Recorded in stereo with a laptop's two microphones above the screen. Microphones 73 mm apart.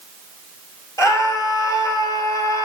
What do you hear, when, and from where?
1.0 s a scream: 50° left (ahead or behind), 3.5 m